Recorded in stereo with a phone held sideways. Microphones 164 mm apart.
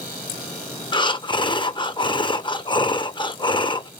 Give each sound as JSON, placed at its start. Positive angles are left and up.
{"t": 0.9, "sound": "breathing", "side_deg": 30, "distance_m": 0.5}